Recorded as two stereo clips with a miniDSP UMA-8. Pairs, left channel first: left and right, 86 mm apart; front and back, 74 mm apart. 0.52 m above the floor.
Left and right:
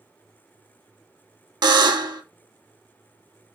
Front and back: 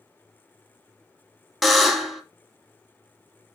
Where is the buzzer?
90° right, 0.6 m.